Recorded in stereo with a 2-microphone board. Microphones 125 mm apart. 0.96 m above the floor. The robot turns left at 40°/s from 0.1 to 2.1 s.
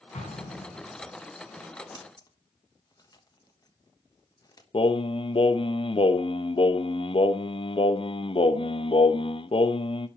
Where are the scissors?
35° left (ahead or behind), 1.3 m; by 4.6 s 30° left (ahead or behind), 1.3 m.